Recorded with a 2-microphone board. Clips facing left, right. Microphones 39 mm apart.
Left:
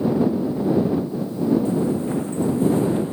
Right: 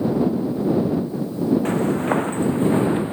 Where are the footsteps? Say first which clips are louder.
Right 1 dB; 60° right (ahead or behind); by 3.1 s 30° right (ahead or behind).